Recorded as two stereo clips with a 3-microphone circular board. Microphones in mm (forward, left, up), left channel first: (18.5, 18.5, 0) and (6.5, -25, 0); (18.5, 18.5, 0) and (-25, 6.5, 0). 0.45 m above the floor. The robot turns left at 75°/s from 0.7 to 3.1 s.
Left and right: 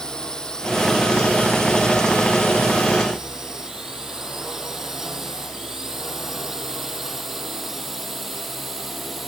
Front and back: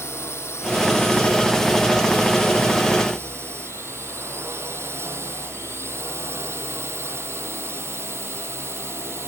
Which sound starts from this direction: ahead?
A drone, at 0.0 s.